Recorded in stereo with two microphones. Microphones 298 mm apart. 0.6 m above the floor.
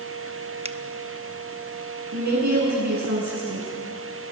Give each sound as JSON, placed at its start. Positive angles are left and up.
{"t": 0.7, "sound": "a finger snap", "side_deg": -20, "distance_m": 0.7}
{"t": 2.1, "sound": "a woman speaking", "side_deg": -65, "distance_m": 8.5}